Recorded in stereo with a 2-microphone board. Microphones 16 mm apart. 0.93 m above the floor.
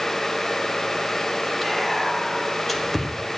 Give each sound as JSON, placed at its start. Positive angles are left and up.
{"t": 1.6, "sound": "whispering", "side_deg": 5, "distance_m": 1.5}